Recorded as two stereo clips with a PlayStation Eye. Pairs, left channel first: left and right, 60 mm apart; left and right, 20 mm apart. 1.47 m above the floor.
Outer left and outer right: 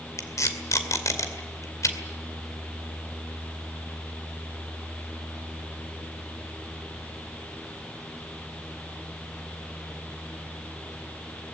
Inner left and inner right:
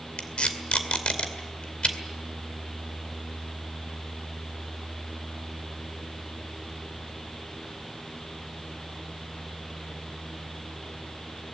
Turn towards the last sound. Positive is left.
turn(degrees=65)  # may be behind; listen again after turning